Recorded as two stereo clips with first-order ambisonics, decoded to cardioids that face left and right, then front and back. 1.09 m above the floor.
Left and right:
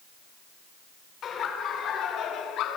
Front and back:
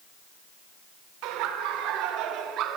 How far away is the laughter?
About 3.5 m.